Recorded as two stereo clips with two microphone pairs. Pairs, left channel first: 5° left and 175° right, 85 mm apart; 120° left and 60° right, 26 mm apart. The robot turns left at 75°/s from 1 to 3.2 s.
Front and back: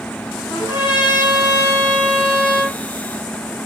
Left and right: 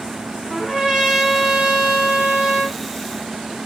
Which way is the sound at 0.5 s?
10° left.